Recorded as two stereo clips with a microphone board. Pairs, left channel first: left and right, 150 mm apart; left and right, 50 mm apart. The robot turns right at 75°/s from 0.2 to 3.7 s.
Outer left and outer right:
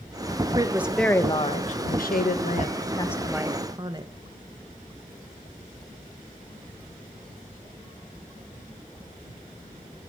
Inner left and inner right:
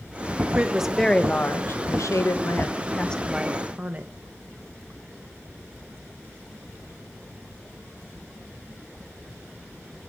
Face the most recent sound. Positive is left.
turn(degrees=-150)